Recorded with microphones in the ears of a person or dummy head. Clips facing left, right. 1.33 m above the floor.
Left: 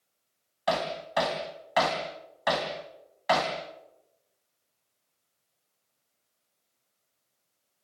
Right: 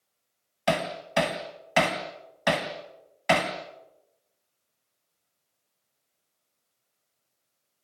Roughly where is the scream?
I don't hear a scream.